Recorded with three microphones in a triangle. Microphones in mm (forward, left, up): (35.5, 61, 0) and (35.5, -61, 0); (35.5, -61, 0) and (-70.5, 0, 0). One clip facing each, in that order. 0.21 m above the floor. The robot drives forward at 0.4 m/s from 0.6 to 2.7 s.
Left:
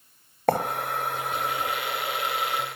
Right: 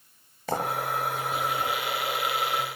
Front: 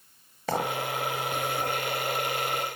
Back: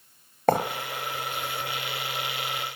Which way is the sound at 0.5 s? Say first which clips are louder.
Left 8 dB, back 8 dB; 115° left.